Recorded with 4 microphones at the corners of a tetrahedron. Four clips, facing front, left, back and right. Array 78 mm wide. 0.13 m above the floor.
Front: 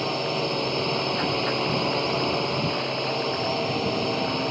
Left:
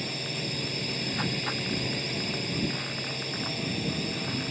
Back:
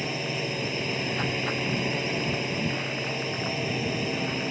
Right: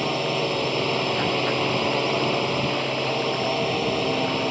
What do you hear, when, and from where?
0.0 s a drone: 65° right